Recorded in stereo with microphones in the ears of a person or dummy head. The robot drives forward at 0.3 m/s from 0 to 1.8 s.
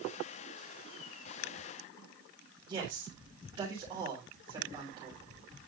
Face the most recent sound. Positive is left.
turn(degrees=-30)  # may be behind; listen again after turning